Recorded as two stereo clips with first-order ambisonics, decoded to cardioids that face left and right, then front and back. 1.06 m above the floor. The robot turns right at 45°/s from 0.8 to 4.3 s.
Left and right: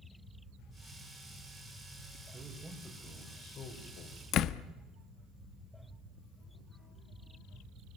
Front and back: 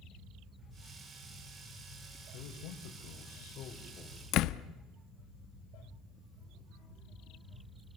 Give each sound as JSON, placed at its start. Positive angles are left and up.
{"t": 2.3, "sound": "a man speaking", "azimuth_deg": -20, "distance_m": 4.5}
{"t": 4.3, "sound": "a door slam", "azimuth_deg": 40, "distance_m": 0.8}